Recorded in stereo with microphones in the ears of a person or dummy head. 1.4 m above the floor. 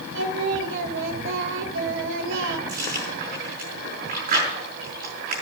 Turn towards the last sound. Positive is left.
turn(degrees=-50)  # may be behind; listen again after turning